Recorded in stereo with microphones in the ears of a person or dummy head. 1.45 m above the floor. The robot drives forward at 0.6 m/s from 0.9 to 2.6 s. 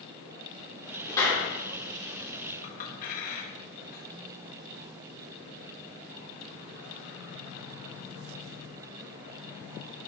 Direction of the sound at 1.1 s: 10° left (ahead or behind).